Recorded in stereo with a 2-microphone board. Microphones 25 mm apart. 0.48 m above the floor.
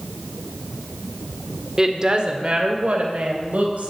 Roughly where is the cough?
I don't hear a cough.